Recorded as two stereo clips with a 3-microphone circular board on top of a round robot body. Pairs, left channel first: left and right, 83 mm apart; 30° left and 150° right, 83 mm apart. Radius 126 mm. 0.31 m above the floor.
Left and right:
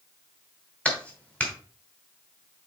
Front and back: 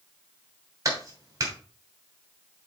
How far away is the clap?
About 2.5 m.